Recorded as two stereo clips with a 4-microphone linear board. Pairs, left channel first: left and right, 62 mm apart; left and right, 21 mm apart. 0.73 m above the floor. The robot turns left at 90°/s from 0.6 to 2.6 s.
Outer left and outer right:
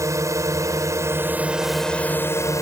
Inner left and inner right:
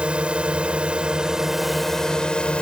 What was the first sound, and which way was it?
A drone, 80° right.